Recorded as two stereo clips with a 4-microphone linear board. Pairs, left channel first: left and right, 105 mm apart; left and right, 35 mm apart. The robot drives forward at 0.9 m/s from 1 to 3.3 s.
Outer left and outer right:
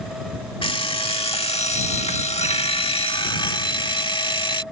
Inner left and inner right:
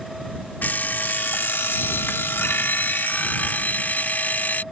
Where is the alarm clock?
60° left (ahead or behind); by 4.6 s 50° left (ahead or behind).